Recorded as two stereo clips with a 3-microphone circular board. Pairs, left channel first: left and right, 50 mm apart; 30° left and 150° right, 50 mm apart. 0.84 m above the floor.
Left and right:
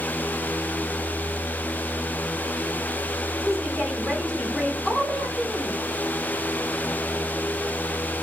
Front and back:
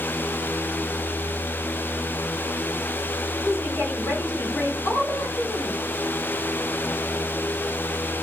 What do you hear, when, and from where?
3.4 s a woman speaking: straight ahead, 2.5 m; by 5.8 s 30° left, 2 m